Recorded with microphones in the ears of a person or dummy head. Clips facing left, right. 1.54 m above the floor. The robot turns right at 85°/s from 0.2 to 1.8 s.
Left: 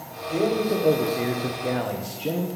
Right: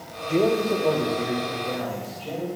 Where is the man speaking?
30° right, 1.3 m; by 2.5 s 95° left, 1.3 m.